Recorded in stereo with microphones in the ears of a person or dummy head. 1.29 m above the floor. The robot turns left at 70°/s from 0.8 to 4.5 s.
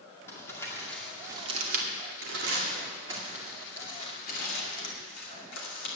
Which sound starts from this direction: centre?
Crumpling, at 0.3 s.